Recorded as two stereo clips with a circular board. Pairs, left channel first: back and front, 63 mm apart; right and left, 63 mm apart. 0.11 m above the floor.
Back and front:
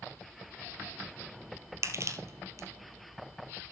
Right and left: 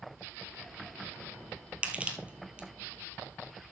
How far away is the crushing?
About 1.4 m.